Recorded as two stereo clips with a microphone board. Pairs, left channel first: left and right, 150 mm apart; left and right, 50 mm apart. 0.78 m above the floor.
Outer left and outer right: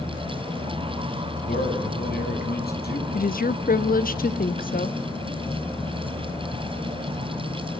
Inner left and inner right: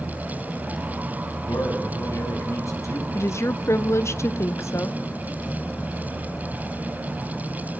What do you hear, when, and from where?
1.4 s a man speaking: 75° left (ahead or behind), 7 m
3.1 s a woman speaking: 65° left (ahead or behind), 1.0 m